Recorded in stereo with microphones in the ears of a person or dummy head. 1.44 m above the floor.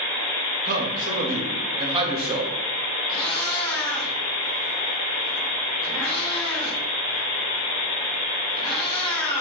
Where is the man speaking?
50° right (ahead or behind), 1.8 m; by 2.5 s 25° right (ahead or behind), 2 m.